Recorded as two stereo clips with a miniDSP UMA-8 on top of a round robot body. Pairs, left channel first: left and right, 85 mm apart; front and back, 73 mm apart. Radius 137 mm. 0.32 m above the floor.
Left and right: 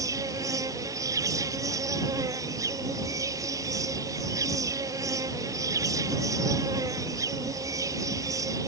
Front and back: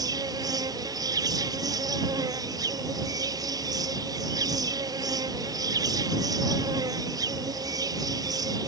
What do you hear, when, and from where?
0.0 s an insect: 145° right